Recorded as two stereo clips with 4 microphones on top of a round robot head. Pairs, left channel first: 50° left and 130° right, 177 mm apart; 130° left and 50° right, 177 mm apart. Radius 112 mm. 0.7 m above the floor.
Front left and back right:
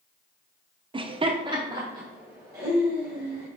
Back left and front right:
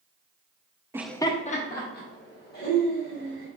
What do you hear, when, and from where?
0.9 s laughter: 105° right, 0.5 m; by 3.5 s 155° left, 3 m